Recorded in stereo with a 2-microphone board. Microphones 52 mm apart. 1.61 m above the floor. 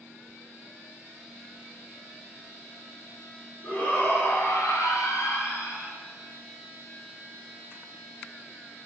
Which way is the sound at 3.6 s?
30° left (ahead or behind).